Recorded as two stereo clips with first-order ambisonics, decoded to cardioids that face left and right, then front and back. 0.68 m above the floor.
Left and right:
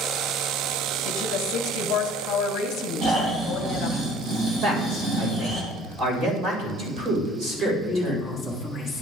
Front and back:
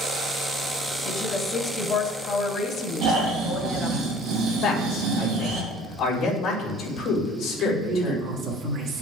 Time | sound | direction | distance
1.1 | a woman speaking | 60° left | 0.9 m
3.0 | snoring | 140° right | 2.5 m
4.6 | a man speaking | 40° right | 3 m
7.6 | a woman speaking | 175° right | 1.3 m